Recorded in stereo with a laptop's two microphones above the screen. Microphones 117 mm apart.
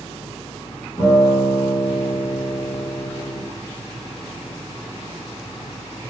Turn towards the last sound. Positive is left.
turn(degrees=30)  # may be behind; listen again after turning